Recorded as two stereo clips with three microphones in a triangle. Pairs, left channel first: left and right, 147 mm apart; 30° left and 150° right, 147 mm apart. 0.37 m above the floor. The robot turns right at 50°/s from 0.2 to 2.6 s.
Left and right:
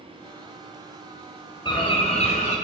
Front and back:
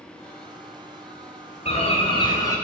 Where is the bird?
45° left, 1.9 m; by 2.5 s 90° left, 1.9 m.